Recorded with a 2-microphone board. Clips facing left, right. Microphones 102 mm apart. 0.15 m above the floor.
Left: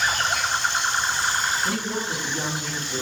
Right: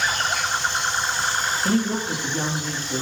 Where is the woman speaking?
45° right (ahead or behind), 3 m; by 3.0 s 40° right (ahead or behind), 3.5 m.